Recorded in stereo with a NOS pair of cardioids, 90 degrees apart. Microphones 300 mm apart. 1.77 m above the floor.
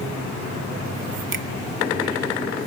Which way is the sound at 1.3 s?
45° right.